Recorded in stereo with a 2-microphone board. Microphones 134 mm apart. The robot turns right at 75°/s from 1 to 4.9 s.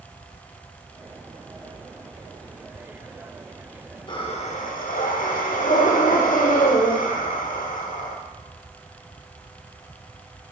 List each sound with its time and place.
4.1 s breathing: 35° left, 0.9 m; by 8.2 s 95° left, 0.9 m